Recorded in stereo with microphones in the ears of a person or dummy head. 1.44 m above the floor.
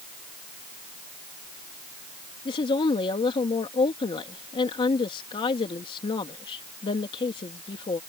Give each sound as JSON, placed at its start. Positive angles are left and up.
{"t": 2.5, "sound": "a woman speaking", "side_deg": 25}